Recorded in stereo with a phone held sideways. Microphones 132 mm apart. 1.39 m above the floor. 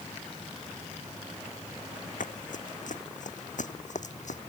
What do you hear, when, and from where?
2.2 s running footsteps: 75° left (ahead or behind); by 4.4 s 65° left (ahead or behind)